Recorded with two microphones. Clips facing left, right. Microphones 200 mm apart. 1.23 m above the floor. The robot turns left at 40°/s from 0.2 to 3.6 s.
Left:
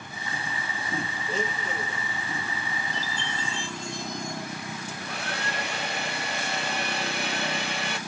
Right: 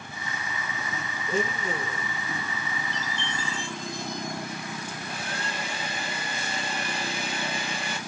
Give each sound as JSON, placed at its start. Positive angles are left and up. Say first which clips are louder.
{"t": 1.3, "sound": "a blender", "louder": "right 5 dB", "azimuth_deg": -105, "distance_m": 2.0}
{"t": 2.9, "sound": "a chime", "louder": "even", "side_deg": -25, "distance_m": 2.0}
{"t": 4.9, "sound": "a hair dryer", "louder": "left 1 dB", "side_deg": 65, "distance_m": 1.4}